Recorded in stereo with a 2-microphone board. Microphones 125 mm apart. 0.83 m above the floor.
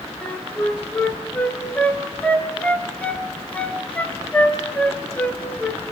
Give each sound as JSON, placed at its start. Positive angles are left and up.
{"t": 0.2, "sound": "a flute", "side_deg": 10, "distance_m": 1.8}